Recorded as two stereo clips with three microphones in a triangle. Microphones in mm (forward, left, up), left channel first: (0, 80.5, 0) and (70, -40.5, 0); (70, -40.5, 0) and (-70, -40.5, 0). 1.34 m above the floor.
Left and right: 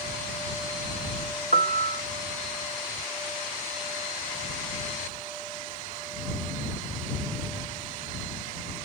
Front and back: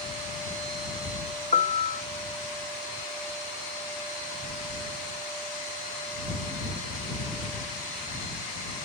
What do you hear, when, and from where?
1.5 s a piano: 40° right